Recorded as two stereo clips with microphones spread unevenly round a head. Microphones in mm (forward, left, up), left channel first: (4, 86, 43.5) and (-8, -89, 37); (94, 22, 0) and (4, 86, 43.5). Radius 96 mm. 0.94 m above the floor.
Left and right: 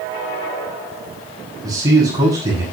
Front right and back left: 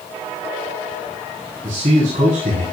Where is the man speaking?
165° right, 6.5 m.